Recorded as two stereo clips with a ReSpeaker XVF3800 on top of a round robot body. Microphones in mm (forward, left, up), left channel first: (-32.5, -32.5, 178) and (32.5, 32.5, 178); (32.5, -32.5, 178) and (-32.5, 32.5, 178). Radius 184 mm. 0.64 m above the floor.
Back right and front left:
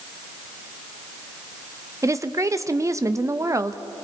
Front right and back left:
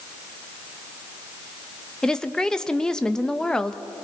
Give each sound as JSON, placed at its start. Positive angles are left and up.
{"t": 2.0, "sound": "a woman speaking", "azimuth_deg": 30, "distance_m": 1.1}